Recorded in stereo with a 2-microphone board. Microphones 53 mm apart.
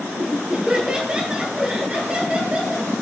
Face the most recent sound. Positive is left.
turn(degrees=-20)  # may be behind; listen again after turning